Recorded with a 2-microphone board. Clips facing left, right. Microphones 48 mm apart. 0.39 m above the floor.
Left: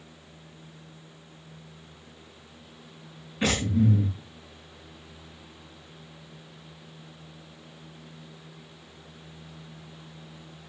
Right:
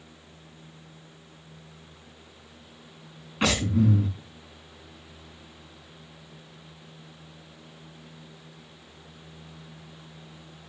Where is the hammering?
No hammering in this recording.